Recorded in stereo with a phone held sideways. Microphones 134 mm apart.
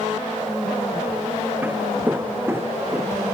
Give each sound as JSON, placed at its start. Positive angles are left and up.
{"t": 1.6, "sound": "footsteps", "side_deg": -15}